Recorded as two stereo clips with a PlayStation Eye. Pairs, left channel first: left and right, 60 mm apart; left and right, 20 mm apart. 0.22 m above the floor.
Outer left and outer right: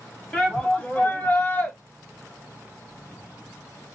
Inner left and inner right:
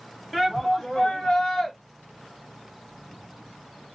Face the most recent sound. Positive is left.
turn(degrees=30)  # may be behind; listen again after turning